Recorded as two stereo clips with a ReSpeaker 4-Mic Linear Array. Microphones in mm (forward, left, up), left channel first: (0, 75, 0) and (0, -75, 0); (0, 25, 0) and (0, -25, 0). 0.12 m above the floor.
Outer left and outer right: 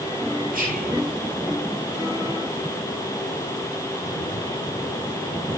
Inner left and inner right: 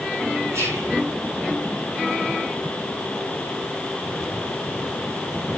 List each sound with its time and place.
0.5 s whispering: 75° right (ahead or behind), 9.5 m